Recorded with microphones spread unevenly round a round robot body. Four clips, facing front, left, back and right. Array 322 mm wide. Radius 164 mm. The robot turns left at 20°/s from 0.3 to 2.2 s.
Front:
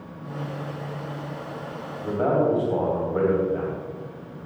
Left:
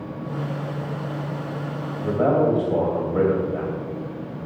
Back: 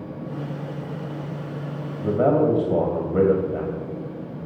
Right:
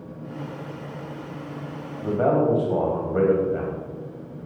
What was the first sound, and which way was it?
A man speaking, straight behind.